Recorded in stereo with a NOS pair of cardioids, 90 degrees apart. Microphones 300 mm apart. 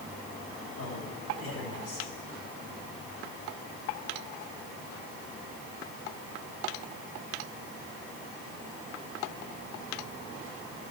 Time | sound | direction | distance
0.8 | a man speaking | 50° left | 10 m